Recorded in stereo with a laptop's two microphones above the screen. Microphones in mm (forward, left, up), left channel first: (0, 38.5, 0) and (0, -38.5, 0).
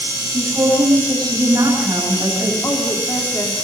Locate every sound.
0.3 s a woman speaking: 40° right (ahead or behind), 8.5 m
2.6 s a woman speaking: 40° left (ahead or behind), 3.5 m